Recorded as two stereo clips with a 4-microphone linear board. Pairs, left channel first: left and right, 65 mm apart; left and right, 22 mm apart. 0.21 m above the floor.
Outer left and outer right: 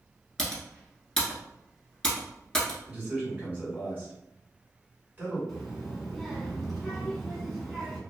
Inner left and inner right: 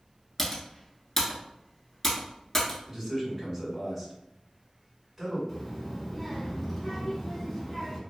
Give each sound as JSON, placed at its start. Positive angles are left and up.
{"t": 0.4, "sound": "typing on a keyboard", "side_deg": 10, "distance_m": 0.8}
{"t": 2.9, "sound": "a man speaking", "side_deg": -25, "distance_m": 1.6}
{"t": 5.5, "sound": "a child speaking", "side_deg": 5, "distance_m": 1.0}